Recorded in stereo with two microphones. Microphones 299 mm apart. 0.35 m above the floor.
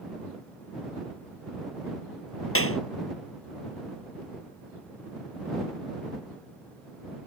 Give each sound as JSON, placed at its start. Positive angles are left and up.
{"t": 2.5, "sound": "a clap", "side_deg": 50}